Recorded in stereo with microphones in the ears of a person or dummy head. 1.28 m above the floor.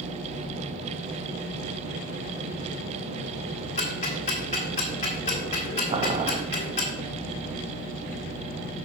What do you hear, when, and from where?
3.8 s ticking: 30° left (ahead or behind), 1.6 m
5.9 s boiling: 35° right (ahead or behind), 0.7 m